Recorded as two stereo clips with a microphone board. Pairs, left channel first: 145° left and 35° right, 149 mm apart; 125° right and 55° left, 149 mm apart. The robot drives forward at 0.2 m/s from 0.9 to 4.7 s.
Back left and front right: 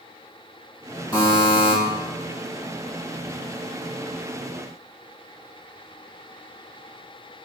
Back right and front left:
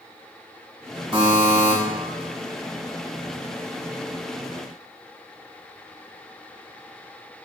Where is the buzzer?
100° left, 1.1 m; by 1.7 s 110° left, 1.1 m.